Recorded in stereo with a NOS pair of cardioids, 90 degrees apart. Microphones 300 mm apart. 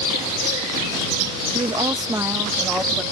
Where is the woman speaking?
15° right; by 3.0 s straight ahead.